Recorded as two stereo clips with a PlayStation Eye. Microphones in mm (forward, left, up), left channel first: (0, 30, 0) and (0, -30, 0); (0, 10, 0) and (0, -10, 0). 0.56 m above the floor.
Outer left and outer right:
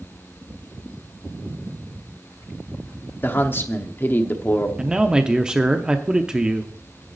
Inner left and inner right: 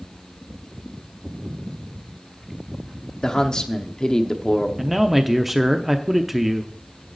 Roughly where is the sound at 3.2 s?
Left.